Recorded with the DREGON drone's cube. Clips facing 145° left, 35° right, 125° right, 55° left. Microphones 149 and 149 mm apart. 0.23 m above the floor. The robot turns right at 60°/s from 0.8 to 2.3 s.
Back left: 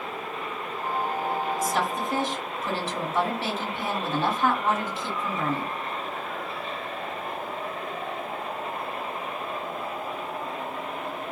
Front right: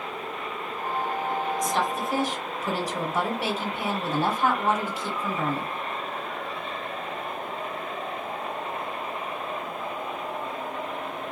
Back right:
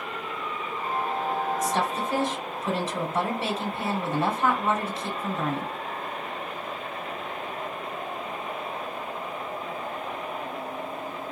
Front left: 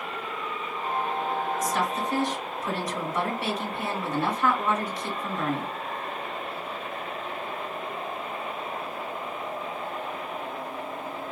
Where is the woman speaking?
140° right, 1.2 m; by 5.7 s 100° right, 1.2 m.